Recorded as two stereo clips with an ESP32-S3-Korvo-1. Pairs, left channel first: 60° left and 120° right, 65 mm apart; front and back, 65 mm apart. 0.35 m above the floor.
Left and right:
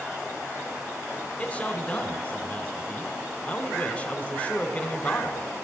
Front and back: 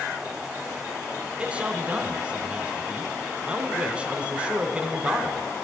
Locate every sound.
1.4 s a man speaking: 120° left, 1.3 m